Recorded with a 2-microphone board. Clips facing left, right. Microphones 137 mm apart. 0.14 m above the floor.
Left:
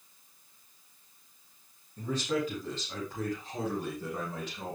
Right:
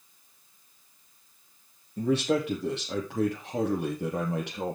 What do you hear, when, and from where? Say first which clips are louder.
2.0 s a man speaking: right 6 dB; 75° right (ahead or behind), 6.5 m; by 4.8 s 70° right (ahead or behind), 5.5 m